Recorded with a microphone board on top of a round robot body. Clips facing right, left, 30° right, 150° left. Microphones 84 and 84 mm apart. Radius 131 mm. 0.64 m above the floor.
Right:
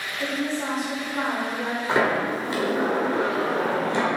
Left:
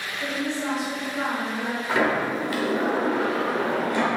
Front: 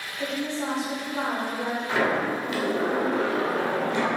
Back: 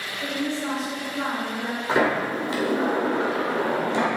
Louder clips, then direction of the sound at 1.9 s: Right 1 dB, back 3 dB; 155° right.